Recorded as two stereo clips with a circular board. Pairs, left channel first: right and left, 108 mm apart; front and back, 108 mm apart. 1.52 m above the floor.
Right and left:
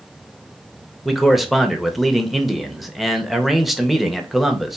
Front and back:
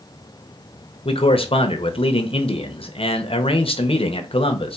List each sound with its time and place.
1.1 s a man speaking: straight ahead, 0.8 m